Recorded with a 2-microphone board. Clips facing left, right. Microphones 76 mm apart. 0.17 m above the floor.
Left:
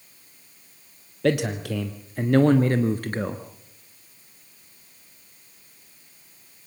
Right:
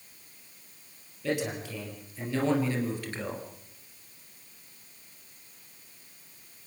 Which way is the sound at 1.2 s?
70° left (ahead or behind).